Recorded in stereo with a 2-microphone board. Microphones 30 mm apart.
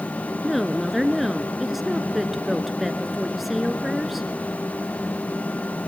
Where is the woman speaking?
5° right (ahead or behind), 1.3 m.